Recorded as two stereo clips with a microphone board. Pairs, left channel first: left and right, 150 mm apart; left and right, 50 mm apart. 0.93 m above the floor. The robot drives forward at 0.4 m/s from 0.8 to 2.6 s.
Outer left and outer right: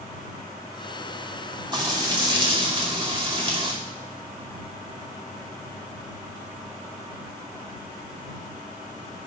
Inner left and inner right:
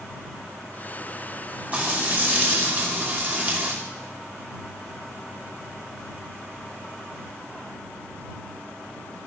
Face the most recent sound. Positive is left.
turn(degrees=-35)  # may be behind; listen again after turning